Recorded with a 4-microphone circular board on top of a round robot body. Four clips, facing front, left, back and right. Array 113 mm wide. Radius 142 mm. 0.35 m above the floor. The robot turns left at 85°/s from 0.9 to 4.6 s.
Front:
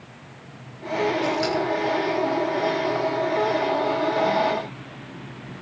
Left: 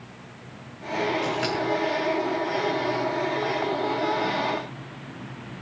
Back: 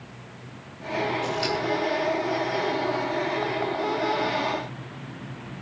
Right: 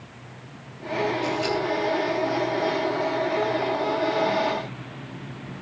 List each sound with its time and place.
1.2 s scissors: 80° left, 5 m; by 1.6 s 50° left, 5 m